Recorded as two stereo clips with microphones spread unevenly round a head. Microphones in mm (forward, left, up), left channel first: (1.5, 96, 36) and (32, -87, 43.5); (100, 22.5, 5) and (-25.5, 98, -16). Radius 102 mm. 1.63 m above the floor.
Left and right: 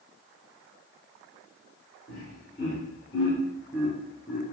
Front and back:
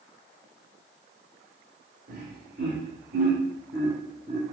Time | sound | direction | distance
2.1 | laughter | 150° left | 1.6 m